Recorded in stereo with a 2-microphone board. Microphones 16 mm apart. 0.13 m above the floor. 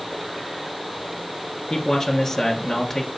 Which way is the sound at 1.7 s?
25° left (ahead or behind).